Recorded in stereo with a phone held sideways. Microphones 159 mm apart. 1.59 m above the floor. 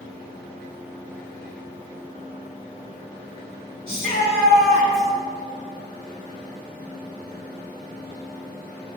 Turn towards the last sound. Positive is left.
turn(degrees=-75)  # may be behind; listen again after turning